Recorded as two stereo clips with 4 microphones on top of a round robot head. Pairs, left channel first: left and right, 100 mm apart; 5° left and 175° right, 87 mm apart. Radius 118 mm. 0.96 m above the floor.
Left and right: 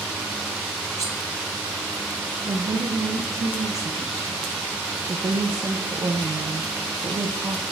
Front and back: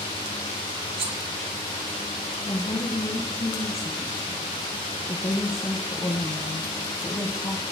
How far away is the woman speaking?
About 0.9 m.